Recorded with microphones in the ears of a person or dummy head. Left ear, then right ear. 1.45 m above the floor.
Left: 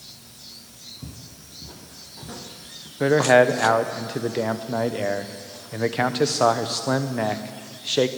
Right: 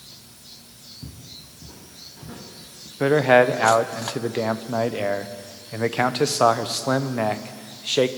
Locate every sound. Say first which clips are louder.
1.0 s footsteps: right 1 dB; 15° left (ahead or behind), 2 m
3.0 s a man speaking: even; 10° right (ahead or behind), 0.8 m